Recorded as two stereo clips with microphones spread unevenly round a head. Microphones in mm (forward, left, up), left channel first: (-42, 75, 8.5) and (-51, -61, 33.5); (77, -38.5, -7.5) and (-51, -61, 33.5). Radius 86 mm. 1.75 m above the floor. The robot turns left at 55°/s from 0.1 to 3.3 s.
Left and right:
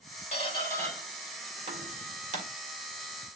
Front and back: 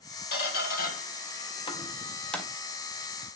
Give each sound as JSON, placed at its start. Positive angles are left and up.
{"t": 0.3, "sound": "a squeak", "azimuth_deg": 30, "distance_m": 2.5}